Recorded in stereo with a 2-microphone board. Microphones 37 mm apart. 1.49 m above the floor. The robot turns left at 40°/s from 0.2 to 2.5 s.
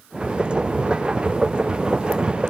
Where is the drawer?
No drawer in this recording.